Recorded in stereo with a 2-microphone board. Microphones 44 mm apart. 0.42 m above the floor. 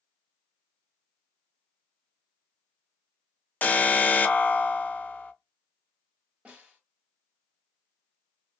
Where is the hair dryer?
I don't hear a hair dryer.